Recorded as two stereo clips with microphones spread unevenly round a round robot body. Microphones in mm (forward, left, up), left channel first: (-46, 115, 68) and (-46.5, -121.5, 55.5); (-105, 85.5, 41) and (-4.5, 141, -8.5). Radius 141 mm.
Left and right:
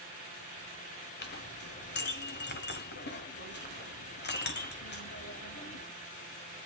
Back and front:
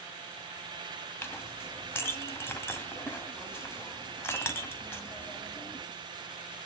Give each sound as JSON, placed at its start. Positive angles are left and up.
{"t": 1.2, "sound": "a clink", "azimuth_deg": 130, "distance_m": 2.0}